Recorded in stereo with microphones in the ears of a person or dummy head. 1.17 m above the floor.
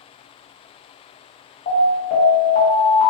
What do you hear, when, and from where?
1.7 s an alarm: 40° left (ahead or behind), 0.8 m